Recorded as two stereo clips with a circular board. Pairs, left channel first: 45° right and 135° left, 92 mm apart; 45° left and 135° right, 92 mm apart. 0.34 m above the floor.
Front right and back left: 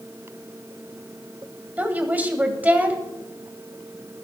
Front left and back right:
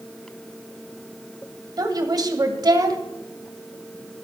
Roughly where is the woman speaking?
Behind.